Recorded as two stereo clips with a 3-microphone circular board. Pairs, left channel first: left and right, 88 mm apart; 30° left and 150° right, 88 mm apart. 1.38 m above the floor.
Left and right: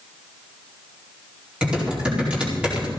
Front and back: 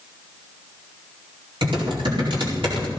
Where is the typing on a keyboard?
170° right, 4.5 m.